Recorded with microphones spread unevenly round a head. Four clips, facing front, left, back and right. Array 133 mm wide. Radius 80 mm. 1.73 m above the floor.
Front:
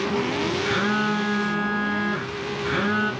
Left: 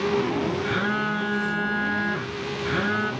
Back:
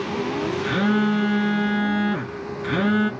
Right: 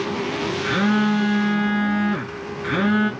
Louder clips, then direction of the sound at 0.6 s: Right 6 dB, back 5 dB; 160° right.